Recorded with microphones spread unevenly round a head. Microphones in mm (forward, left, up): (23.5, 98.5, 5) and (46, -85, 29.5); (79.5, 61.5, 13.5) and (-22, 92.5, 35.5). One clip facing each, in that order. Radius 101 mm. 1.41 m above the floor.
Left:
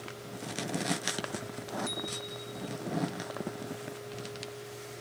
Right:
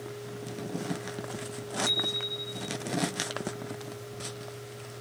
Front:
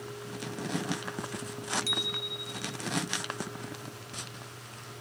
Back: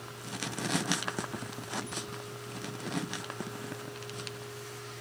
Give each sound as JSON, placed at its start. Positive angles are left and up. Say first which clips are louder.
{"t": 1.9, "sound": "a bicycle bell", "louder": "right 3 dB, front 2 dB", "azimuth_deg": -35}